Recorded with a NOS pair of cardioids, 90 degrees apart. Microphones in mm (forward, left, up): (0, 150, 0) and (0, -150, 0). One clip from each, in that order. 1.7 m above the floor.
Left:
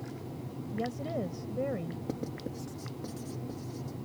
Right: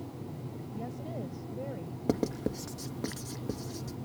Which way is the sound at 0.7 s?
45° left.